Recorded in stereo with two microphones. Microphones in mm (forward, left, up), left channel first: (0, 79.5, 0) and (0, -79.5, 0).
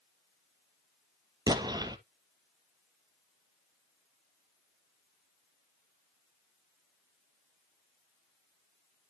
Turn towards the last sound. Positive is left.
turn(degrees=-25)  # may be behind; listen again after turning